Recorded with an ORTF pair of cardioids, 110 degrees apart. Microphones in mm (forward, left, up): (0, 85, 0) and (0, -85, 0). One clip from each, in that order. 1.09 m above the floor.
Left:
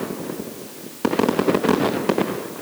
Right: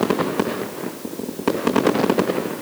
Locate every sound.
Only background noise.